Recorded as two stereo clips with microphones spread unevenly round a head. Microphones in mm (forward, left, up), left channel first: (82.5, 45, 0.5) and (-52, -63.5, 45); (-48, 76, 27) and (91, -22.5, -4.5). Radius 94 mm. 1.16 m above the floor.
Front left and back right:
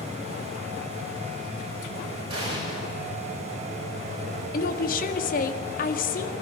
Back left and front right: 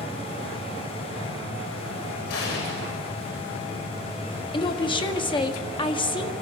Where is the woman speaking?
80° left, 1.9 m.